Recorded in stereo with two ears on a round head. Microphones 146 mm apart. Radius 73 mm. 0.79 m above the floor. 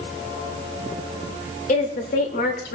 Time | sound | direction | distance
1.7 | a woman speaking | 50° left (ahead or behind) | 3.5 m